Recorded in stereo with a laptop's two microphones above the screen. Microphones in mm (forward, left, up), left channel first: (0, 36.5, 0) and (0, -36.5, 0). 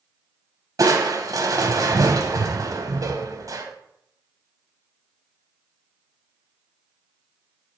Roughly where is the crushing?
Right.